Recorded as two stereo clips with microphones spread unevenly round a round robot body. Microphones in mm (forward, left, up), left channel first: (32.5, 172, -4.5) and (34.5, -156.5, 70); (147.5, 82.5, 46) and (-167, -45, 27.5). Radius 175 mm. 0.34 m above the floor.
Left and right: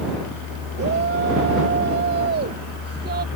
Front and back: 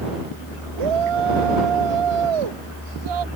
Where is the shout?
150° right; by 3.3 s 155° right.